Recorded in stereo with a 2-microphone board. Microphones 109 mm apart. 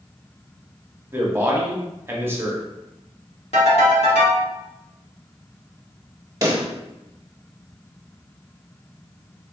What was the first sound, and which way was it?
A man speaking, 25° right (ahead or behind).